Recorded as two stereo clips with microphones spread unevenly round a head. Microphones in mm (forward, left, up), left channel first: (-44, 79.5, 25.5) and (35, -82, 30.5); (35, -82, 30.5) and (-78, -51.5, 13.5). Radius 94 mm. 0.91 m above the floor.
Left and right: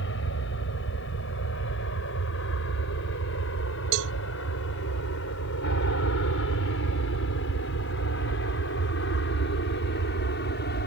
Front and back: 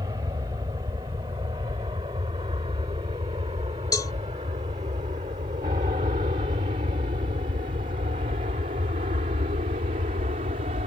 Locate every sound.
0.0 s an aircraft: 95° left; by 10.9 s 135° left
3.9 s a cowbell: 75° right